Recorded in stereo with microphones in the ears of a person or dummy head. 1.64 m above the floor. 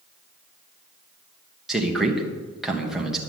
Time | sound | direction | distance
1.7 | a man speaking | 5° right (ahead or behind) | 1.6 m